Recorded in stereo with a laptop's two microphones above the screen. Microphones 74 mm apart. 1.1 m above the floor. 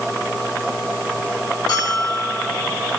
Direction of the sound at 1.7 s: 60° left (ahead or behind).